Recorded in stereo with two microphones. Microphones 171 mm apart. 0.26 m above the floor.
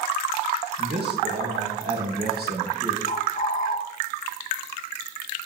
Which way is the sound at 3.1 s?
60° left (ahead or behind).